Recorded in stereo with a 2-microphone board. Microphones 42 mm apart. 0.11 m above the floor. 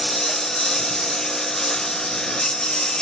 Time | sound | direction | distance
0.0 | a lawn mower | 10° left (ahead or behind) | ?